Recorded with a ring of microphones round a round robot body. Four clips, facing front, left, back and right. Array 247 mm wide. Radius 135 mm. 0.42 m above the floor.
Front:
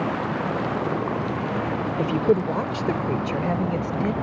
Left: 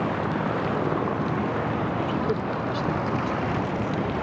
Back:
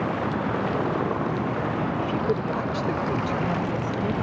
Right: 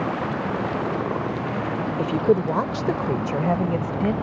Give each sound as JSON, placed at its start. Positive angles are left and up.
{"t": 2.0, "sound": "a woman speaking", "azimuth_deg": -50}